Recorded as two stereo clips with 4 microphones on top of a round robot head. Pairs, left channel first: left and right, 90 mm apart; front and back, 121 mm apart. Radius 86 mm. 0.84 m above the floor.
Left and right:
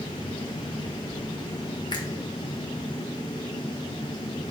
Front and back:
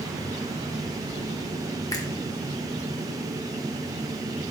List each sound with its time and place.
1.9 s a finger snap: 60° left, 1.6 m